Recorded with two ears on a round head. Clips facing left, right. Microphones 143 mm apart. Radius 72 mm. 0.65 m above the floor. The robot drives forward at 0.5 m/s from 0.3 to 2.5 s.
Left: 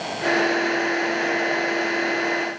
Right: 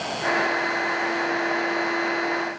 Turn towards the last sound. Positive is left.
No sound to turn to.